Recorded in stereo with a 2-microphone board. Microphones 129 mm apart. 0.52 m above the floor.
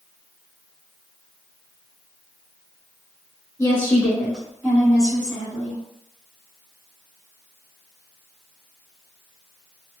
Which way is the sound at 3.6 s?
20° left (ahead or behind).